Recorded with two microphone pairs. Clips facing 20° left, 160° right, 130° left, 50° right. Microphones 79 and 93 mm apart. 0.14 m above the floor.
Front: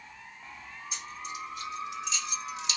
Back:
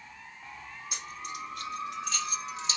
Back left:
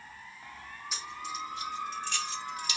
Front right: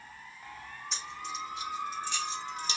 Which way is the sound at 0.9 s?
145° right.